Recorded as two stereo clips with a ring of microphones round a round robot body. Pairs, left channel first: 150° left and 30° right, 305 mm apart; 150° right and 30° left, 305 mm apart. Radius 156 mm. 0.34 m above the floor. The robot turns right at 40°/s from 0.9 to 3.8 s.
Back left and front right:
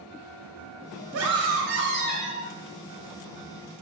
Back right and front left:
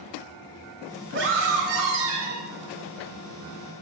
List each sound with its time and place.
1.1 s a scream: 15° right, 1.7 m; by 2.5 s 40° left, 1.7 m